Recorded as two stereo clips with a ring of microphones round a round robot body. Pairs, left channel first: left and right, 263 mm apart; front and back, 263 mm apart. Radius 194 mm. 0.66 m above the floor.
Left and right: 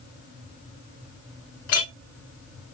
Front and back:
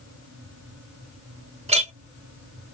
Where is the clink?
115° left, 1.2 m.